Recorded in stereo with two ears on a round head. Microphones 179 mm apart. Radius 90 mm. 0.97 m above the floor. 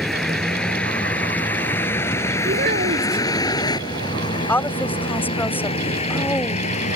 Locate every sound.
0.0 s a vehicle: centre (ahead or behind); by 7.0 s 35° left (ahead or behind)
2.5 s a child speaking: 45° right (ahead or behind)
4.5 s a woman speaking: 10° left (ahead or behind)